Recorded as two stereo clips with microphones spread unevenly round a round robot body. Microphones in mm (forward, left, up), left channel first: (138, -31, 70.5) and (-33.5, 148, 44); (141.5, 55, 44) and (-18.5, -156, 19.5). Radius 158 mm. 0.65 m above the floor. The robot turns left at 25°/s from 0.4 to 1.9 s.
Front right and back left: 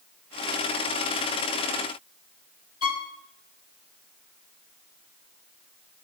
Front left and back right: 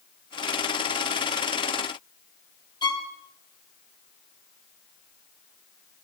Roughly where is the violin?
Ahead.